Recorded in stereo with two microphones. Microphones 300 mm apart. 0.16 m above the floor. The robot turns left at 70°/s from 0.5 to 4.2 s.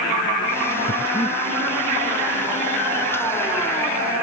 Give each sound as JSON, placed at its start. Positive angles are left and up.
{"t": 0.9, "sound": "breathing", "side_deg": 45}